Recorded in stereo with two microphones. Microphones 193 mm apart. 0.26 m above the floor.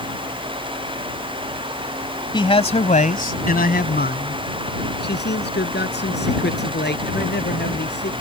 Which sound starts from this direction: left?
A man speaking, at 2.3 s.